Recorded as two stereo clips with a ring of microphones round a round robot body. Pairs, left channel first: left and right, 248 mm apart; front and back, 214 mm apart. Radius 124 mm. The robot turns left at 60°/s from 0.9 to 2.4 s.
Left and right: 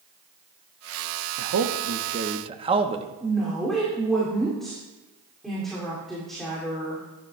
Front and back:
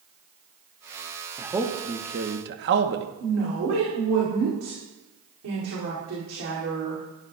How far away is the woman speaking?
About 2 m.